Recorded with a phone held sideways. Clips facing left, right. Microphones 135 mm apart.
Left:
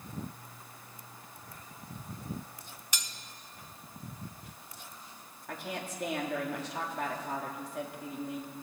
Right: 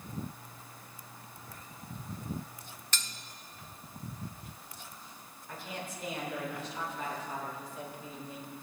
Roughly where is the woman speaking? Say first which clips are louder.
Left 3 dB; left.